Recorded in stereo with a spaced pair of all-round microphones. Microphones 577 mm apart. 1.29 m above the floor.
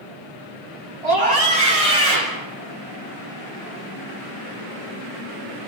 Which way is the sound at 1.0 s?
75° right (ahead or behind).